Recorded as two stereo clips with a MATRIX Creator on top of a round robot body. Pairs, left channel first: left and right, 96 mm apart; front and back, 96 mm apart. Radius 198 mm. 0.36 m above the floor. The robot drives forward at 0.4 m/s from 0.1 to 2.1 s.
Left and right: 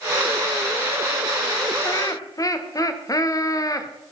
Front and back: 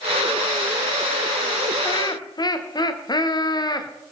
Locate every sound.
1.8 s laughter: 40° left, 2 m